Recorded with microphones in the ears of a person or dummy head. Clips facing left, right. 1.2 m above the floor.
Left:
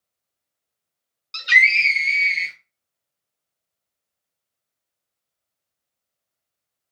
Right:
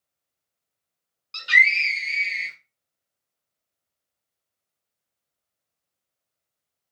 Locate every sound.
1.3 s a scream: 15° left (ahead or behind), 0.8 m